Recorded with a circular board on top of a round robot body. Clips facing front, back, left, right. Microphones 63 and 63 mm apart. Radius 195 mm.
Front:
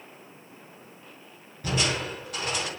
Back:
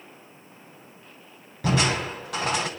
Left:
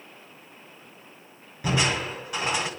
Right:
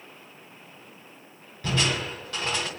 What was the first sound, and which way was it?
Crushing, 165° left.